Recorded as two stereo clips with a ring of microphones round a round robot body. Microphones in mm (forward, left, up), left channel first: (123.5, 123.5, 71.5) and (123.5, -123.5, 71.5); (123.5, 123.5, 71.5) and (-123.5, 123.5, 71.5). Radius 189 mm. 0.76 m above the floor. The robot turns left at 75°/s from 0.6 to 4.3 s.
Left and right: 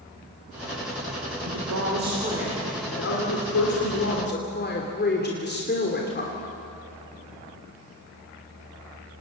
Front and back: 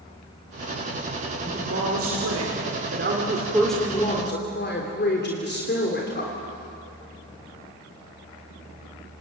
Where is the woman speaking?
100° right, 3 m; by 6.3 s 45° left, 3 m.